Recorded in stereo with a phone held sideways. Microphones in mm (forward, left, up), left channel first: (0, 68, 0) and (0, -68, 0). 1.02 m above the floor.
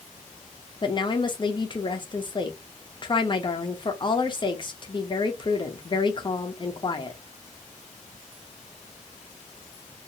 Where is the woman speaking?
35° left (ahead or behind), 0.6 m.